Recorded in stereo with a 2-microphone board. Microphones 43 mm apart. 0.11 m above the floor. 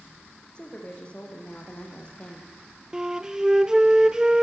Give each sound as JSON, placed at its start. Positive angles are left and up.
{"t": 0.6, "sound": "a woman speaking", "side_deg": 25, "distance_m": 5.0}
{"t": 2.9, "sound": "a flute", "side_deg": -15, "distance_m": 0.7}